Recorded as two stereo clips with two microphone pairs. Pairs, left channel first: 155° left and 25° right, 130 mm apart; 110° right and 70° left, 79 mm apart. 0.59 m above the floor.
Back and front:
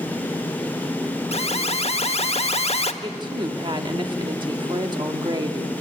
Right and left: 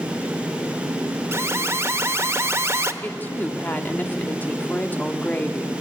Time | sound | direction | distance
1.3 | an alarm | 125° left | 0.9 m
3.0 | a woman speaking | 55° right | 1.1 m